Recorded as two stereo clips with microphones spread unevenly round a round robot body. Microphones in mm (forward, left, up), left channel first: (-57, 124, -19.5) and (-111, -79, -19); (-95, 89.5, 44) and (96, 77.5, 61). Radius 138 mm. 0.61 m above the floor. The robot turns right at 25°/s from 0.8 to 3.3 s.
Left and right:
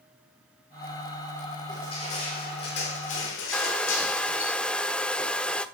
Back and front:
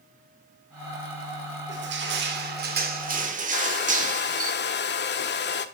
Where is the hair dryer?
160° left, 0.9 m.